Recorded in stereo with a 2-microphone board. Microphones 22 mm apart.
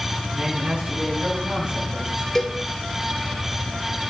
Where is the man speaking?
80° right, 6 m.